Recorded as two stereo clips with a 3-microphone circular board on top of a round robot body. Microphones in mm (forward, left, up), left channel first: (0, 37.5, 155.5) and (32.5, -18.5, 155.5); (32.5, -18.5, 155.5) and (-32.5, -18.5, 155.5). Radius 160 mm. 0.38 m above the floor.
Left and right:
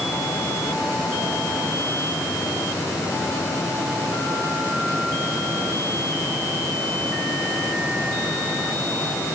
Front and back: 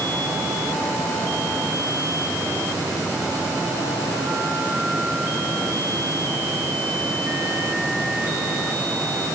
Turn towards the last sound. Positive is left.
No sound to turn to.